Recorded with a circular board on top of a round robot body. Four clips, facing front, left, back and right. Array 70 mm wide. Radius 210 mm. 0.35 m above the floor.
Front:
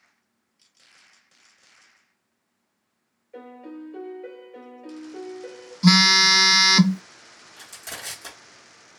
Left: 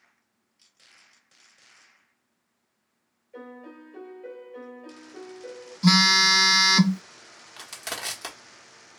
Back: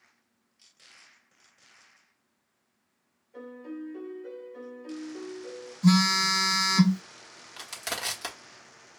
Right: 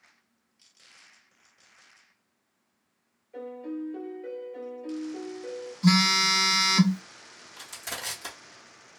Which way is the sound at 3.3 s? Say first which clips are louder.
Right 7 dB, front 1 dB; straight ahead.